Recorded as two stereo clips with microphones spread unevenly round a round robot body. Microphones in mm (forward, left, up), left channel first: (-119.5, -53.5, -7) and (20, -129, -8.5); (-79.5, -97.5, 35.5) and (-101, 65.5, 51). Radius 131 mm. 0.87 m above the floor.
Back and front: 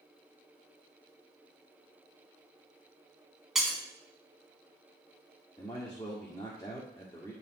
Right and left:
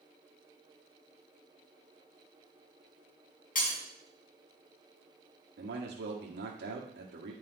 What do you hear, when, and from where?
3.5 s breaking glass: 115° right, 2.5 m
5.6 s a man speaking: 75° left, 1.6 m